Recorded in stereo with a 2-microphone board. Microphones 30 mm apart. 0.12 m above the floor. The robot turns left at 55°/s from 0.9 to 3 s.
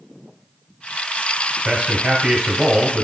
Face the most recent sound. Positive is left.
turn(degrees=-5)  # may be behind; listen again after turning